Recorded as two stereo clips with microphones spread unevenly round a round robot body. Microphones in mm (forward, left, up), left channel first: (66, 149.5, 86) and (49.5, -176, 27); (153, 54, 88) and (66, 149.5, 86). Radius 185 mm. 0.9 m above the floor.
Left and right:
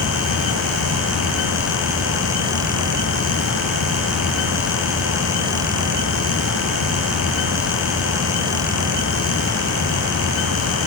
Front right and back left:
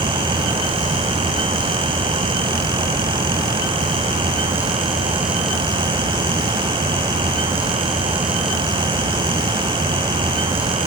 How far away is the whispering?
I don't hear whispering.